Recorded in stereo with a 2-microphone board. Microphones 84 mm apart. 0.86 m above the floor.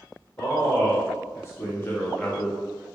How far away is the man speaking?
About 1.2 m.